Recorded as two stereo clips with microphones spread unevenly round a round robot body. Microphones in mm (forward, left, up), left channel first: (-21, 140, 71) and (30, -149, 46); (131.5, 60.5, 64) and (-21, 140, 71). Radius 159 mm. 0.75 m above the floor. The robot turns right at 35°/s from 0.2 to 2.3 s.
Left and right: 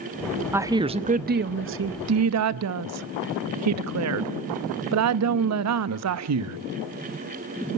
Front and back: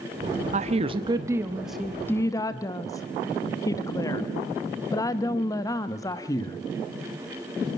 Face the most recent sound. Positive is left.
turn(degrees=-100)